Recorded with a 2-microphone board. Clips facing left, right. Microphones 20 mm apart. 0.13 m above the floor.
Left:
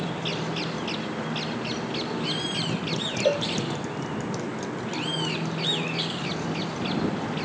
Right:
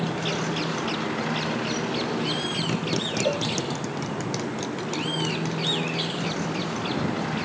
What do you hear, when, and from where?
0.0 s a motorcycle: 40° right (ahead or behind); by 7.5 s 25° right (ahead or behind)
3.2 s a cowbell: 20° left (ahead or behind)